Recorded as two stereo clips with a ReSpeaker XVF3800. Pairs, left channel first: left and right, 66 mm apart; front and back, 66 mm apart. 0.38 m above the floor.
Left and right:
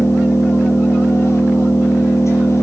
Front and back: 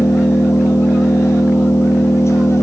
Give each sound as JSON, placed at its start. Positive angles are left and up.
{"t": 0.0, "sound": "an engine running", "azimuth_deg": 45, "distance_m": 6.5}